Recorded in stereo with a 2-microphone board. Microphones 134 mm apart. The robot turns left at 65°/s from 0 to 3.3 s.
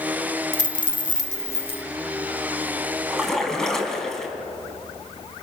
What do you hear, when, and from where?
0.5 s a dropped coin: 115° left, 1.0 m; by 1.8 s 30° left, 1.0 m
3.1 s a splash: 10° right (ahead or behind), 3.5 m; by 4.3 s 5° left (ahead or behind), 3.5 m